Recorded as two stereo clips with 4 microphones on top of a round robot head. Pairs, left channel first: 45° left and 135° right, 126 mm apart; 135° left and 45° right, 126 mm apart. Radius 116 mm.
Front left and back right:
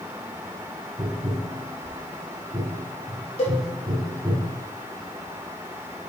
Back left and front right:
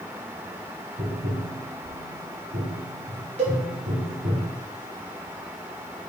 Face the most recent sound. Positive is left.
turn(degrees=0)